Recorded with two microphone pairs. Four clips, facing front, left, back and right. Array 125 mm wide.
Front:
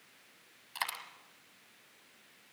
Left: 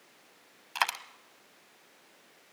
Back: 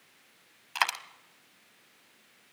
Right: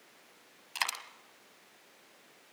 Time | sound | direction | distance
0.8 | a dropped coin | 125° left | 0.9 m